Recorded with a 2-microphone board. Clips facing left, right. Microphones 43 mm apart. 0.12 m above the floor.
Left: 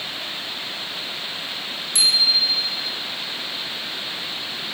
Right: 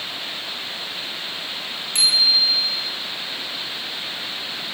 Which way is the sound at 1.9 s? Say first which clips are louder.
Right 1 dB; 40° right (ahead or behind).